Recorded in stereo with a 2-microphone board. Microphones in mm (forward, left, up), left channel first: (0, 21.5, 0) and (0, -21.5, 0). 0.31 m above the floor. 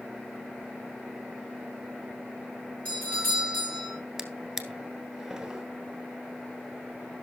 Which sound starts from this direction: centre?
A drawer, at 4.2 s.